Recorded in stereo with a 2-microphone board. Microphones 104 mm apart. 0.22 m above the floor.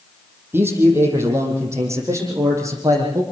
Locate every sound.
0.5 s a man speaking: 20° right (ahead or behind), 6 m; by 3.2 s 30° right (ahead or behind), 8.5 m